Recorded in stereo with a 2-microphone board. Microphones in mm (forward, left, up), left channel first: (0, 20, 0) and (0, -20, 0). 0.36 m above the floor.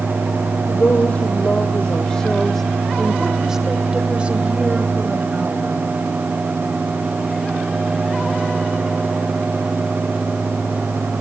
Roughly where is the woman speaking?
Left.